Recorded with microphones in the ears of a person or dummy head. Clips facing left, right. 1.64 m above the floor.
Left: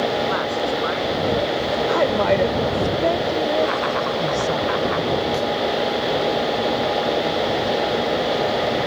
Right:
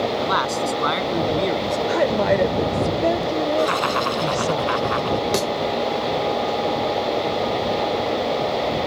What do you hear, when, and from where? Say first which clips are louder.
0.2 s a man speaking: left 1 dB; 65° right (ahead or behind); by 1.8 s 60° right (ahead or behind)
1.9 s a woman speaking: even; 10° right (ahead or behind)
3.6 s laughter: left 1 dB; 60° right (ahead or behind)
5.3 s a thud: even; 75° right (ahead or behind)